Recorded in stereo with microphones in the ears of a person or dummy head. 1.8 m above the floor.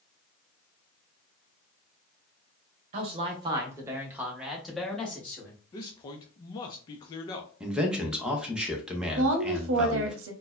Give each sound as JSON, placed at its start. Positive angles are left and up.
{"t": 2.9, "sound": "a man speaking", "side_deg": -40, "distance_m": 1.1}
{"t": 5.7, "sound": "a man speaking", "side_deg": 25, "distance_m": 0.6}
{"t": 7.6, "sound": "a man speaking", "side_deg": -10, "distance_m": 0.8}
{"t": 9.2, "sound": "a woman speaking", "side_deg": -85, "distance_m": 0.9}